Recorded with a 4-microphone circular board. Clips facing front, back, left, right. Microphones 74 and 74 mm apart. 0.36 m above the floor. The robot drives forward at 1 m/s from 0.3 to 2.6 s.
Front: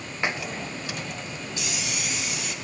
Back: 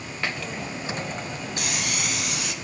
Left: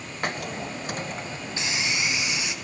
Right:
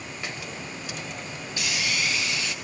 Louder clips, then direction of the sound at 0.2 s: Front 1 dB, left 8 dB; 70° left.